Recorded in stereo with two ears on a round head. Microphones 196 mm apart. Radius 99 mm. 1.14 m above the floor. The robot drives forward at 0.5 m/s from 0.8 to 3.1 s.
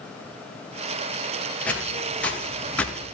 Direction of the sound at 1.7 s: 5° left (ahead or behind).